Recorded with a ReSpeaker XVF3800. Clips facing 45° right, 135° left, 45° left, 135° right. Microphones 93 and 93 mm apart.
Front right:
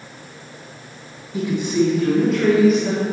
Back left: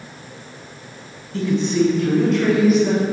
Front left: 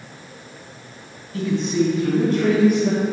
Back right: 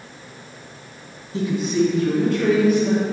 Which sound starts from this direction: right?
A woman speaking, at 1.3 s.